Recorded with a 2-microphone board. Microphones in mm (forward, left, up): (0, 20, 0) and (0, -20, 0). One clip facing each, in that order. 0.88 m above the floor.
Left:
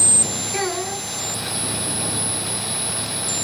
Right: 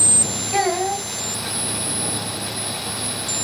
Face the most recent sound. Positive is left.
turn(degrees=-80)